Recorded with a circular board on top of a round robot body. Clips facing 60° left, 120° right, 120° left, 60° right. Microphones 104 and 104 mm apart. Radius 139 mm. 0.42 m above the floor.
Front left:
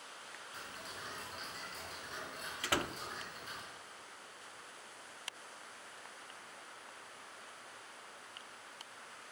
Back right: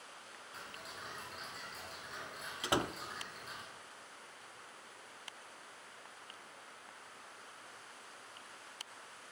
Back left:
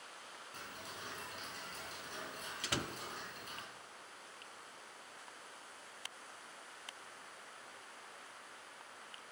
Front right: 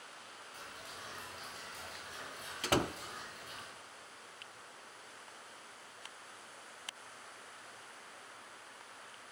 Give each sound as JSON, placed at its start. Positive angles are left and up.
{"t": 0.5, "sound": "ticking", "azimuth_deg": 150, "distance_m": 4.5}
{"t": 2.6, "sound": "a door slam", "azimuth_deg": -60, "distance_m": 0.5}